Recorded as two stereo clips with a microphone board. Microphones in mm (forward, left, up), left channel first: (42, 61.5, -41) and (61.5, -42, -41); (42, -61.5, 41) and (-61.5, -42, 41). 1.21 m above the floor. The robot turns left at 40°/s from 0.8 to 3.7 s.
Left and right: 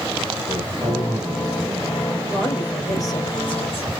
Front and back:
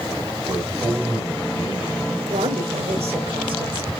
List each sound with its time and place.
0.5 s a man speaking: 120° right, 6 m; by 2.2 s 175° right, 6 m
2.3 s a woman speaking: 175° right, 4.5 m; by 3.9 s 125° left, 4.5 m